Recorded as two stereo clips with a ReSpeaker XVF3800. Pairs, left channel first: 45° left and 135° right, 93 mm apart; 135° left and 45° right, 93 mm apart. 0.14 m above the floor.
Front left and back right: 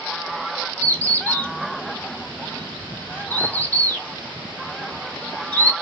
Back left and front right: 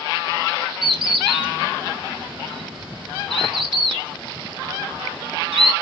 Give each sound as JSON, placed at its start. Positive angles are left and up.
{"t": 0.8, "sound": "a bird", "azimuth_deg": -25, "distance_m": 4.0}